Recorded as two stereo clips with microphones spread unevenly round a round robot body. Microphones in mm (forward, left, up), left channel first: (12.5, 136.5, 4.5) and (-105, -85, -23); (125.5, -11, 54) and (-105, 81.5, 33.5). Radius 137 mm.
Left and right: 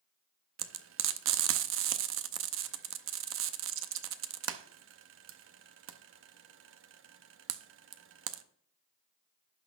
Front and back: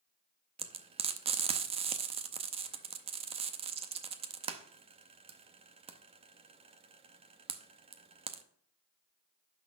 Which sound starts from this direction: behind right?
Frying, at 0.6 s.